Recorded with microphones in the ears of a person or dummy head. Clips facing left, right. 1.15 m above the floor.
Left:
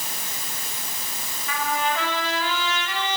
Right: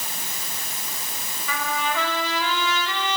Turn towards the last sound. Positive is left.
turn(degrees=-85)